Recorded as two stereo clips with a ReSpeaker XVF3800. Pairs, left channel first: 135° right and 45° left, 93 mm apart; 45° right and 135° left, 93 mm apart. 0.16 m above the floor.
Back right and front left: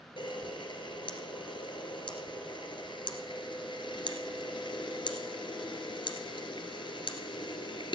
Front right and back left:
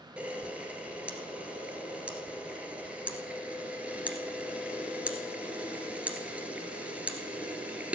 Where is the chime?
I don't hear a chime.